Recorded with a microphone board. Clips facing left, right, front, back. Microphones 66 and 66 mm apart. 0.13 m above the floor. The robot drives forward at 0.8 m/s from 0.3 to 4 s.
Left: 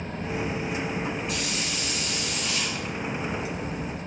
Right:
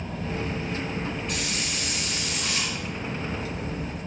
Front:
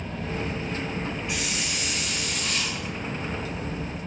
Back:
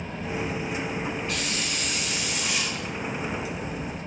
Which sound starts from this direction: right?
A hiss, at 1.3 s.